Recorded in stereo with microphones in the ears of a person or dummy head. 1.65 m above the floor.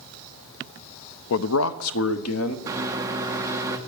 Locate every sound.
1.3 s a man speaking: 80° left, 0.7 m; by 2.6 s 85° left, 1.5 m
2.7 s a microwave: 30° right (ahead or behind), 1.3 m